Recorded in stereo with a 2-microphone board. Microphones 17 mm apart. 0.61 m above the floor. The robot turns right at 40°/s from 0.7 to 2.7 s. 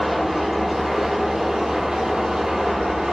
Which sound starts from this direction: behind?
An engine running, at 0.0 s.